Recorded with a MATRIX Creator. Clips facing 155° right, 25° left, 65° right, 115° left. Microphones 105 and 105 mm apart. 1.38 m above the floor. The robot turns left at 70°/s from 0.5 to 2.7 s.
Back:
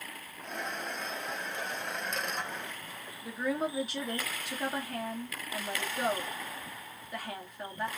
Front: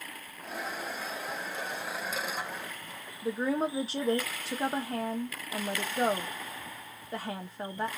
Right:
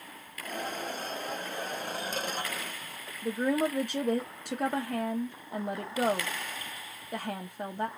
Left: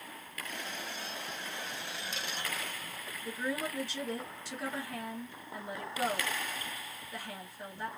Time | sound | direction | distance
3.2 | a woman speaking | 35° right | 0.7 m